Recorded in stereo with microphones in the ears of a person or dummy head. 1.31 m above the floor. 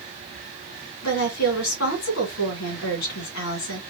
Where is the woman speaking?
70° left (ahead or behind), 2.5 m.